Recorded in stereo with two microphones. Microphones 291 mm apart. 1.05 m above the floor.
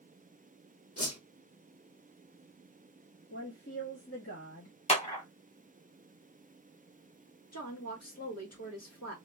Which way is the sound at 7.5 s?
60° left (ahead or behind).